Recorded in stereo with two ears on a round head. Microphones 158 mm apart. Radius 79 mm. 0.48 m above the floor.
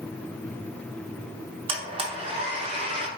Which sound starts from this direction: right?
A blender, at 1.7 s.